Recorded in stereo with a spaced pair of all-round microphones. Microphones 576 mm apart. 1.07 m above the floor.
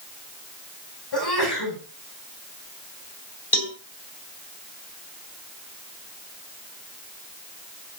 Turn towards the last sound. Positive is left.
turn(degrees=40)  # may be behind; listen again after turning